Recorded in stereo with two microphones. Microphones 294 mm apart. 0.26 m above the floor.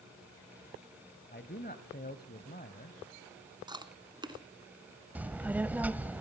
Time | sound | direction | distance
1.3 | a man speaking | 30° left (ahead or behind) | 1.0 m
3.7 | chewing | 15° right (ahead or behind) | 1.4 m
5.2 | a child speaking | 5° right (ahead or behind) | 0.5 m